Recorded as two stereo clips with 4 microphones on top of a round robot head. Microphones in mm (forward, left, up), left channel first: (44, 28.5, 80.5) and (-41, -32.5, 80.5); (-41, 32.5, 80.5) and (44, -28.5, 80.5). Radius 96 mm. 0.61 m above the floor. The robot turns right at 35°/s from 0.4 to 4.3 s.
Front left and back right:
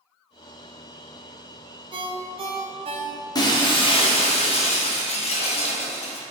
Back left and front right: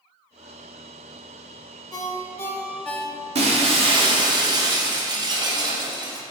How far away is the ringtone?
About 0.7 m.